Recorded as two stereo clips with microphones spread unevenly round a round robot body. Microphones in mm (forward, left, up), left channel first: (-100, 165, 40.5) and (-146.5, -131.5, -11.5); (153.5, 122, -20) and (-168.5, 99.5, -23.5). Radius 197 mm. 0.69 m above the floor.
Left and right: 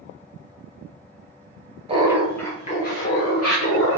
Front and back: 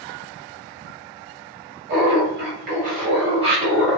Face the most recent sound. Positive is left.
turn(degrees=110)